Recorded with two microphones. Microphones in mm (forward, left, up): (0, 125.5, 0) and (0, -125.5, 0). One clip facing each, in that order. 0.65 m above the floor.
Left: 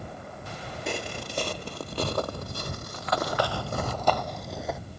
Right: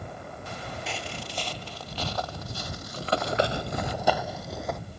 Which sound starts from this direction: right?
Running footsteps, at 2.9 s.